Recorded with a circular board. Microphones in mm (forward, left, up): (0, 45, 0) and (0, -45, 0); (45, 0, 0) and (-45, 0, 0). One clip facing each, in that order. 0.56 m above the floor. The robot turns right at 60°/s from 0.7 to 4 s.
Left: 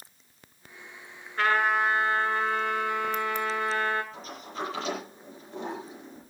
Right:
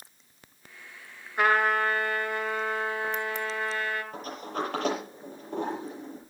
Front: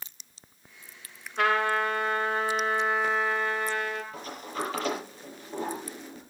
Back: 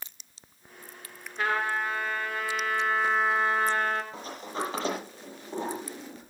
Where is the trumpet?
15° right, 8 m; by 4.0 s 145° left, 8 m.